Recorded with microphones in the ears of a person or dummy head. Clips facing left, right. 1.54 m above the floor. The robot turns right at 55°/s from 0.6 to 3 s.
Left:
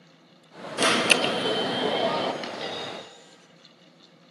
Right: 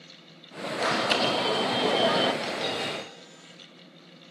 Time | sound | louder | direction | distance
0.8 | an alarm | left 3 dB | 115° left | 1.3 m
2.4 | a dropped coin | right 3 dB | 155° left | 4.5 m